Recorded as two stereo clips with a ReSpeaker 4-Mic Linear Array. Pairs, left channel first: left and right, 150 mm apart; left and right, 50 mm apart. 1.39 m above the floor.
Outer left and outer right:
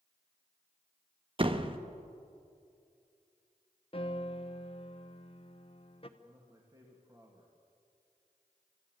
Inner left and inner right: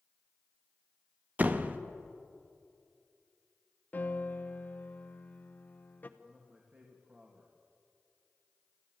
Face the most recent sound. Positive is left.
turn(degrees=-25)  # may be behind; listen again after turning